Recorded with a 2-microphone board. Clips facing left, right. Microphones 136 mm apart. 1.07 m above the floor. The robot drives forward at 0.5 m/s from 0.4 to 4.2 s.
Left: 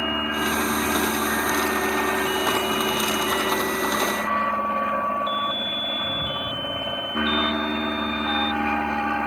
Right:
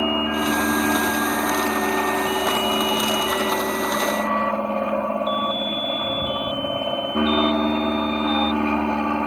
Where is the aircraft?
30° right (ahead or behind).